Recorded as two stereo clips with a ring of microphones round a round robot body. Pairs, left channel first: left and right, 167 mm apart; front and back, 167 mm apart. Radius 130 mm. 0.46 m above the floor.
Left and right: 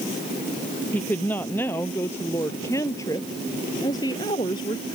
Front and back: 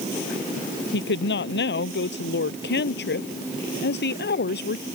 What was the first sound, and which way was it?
A woman speaking, 5° left.